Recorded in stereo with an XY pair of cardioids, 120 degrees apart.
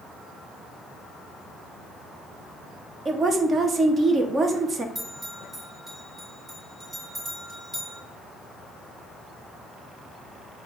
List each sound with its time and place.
3.0 s a woman speaking: 35° right, 0.6 m
5.0 s a bell: 20° right, 1.9 m